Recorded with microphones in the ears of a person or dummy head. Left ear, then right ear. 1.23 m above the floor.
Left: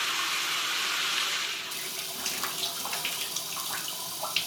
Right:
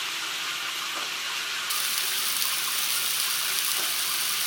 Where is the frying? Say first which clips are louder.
Right 8 dB; 70° right (ahead or behind), 1.3 m.